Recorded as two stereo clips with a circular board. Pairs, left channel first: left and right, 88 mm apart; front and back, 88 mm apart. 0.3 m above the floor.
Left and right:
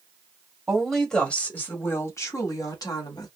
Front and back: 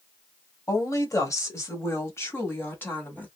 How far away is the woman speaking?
About 1.1 m.